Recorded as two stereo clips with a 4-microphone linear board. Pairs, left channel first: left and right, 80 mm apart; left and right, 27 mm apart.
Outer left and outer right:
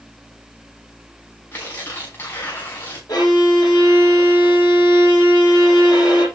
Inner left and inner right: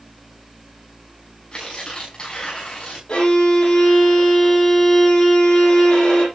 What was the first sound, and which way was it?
Tearing paper, 35° left (ahead or behind).